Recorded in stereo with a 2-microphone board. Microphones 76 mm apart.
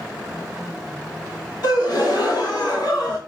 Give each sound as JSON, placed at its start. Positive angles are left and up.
{"t": 1.6, "sound": "a gasp", "side_deg": 60, "distance_m": 1.4}